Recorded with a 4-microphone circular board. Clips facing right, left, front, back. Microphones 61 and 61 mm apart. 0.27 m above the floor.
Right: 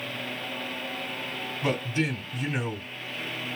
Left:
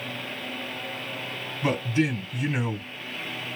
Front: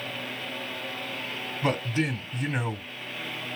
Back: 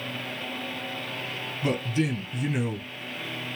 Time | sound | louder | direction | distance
1.6 | a man speaking | left 3 dB, even | 10° right | 1.5 m